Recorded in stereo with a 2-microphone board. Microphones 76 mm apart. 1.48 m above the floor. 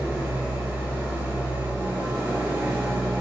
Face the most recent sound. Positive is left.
turn(degrees=-25)  # may be behind; listen again after turning